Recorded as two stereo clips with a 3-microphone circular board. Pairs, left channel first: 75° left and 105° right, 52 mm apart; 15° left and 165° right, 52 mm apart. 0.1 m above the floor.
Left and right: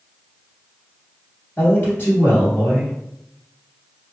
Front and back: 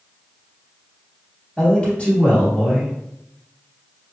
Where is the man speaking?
70° left, 1.9 m.